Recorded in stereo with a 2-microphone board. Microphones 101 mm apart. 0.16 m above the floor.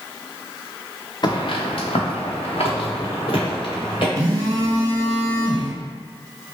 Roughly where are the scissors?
I don't hear scissors.